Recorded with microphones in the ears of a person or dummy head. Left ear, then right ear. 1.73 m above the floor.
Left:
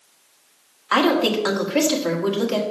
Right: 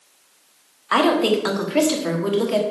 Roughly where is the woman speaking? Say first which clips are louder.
Right 1 dB; centre.